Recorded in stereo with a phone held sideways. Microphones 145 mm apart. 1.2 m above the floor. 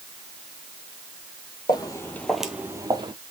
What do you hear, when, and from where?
1.7 s footsteps: 30° left (ahead or behind), 1.5 m; by 3.1 s 35° right (ahead or behind), 1.5 m